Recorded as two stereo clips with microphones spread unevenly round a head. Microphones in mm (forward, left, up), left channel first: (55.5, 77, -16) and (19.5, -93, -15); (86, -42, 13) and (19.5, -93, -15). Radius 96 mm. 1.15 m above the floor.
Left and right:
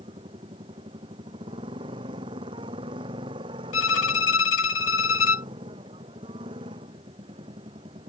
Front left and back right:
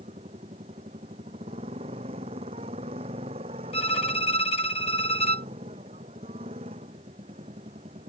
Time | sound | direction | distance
0.0 | a motorcycle | 170° right | ?
3.7 | a violin | 85° left | ?